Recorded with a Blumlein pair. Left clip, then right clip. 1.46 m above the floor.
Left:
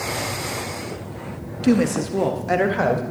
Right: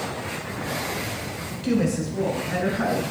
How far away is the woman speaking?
About 1.2 m.